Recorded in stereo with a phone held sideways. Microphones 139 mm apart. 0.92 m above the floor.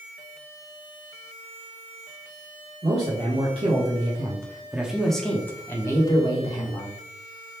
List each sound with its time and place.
2.8 s a man speaking: 45° right (ahead or behind), 1.3 m; by 7.0 s 35° left (ahead or behind), 1.4 m